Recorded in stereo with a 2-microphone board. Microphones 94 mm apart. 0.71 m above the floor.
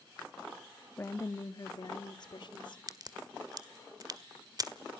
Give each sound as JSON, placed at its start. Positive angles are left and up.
{"t": 1.0, "sound": "a woman speaking", "side_deg": 25, "distance_m": 0.8}
{"t": 2.9, "sound": "a crack", "side_deg": -45, "distance_m": 1.4}